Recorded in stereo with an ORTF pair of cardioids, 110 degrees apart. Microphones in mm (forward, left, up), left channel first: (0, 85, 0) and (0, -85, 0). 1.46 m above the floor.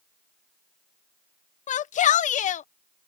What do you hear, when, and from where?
1.7 s a shout: 45° left